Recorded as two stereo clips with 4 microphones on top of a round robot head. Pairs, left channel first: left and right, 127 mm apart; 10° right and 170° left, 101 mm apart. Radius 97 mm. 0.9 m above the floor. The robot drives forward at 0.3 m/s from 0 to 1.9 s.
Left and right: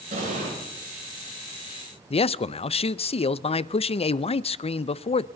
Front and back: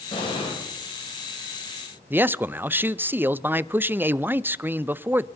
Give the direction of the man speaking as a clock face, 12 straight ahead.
8 o'clock.